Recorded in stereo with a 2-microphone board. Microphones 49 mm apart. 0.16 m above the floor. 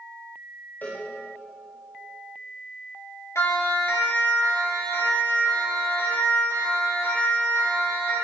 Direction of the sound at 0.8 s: 40° left (ahead or behind).